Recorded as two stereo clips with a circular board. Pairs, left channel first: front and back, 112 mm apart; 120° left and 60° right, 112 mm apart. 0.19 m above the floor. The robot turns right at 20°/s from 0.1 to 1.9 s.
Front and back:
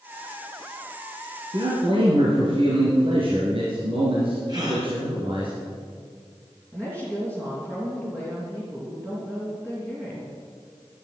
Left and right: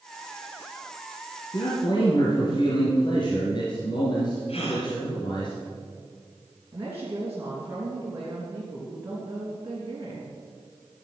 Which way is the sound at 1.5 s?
150° left.